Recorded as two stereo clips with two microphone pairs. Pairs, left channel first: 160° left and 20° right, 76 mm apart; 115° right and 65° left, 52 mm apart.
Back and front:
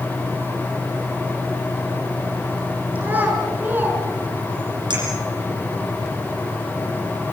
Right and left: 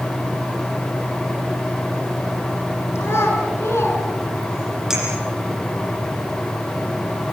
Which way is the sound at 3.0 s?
85° right.